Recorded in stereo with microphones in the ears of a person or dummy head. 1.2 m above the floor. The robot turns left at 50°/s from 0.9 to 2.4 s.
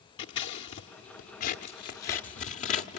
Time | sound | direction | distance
0.2 | scissors | 25° left (ahead or behind) | 1.0 m